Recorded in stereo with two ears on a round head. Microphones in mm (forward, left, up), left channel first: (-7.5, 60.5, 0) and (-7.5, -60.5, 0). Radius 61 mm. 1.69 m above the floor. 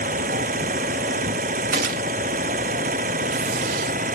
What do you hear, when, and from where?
0.0 s an engine running: 60° right (ahead or behind)
1.7 s a gunshot: 70° right (ahead or behind)